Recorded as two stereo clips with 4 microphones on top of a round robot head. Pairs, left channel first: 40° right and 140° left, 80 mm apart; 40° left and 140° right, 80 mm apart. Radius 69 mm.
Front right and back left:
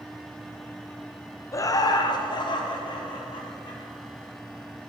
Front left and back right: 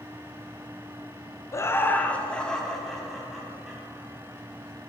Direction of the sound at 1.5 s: Straight ahead.